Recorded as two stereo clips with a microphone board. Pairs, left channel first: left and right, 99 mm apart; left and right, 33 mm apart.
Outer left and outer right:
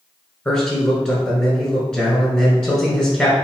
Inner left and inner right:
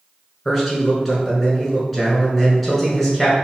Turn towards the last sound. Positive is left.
turn(degrees=10)  # may be behind; listen again after turning